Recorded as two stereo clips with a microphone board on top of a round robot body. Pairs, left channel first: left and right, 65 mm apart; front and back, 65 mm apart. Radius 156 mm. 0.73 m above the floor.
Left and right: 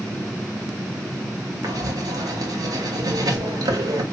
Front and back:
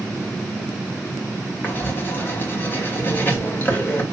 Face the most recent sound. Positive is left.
turn(degrees=-60)